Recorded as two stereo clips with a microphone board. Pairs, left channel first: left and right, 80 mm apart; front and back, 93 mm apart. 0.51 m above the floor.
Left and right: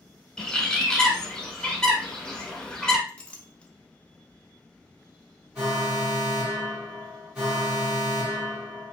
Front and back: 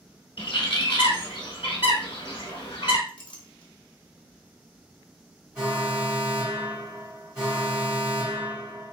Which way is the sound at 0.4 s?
10° left.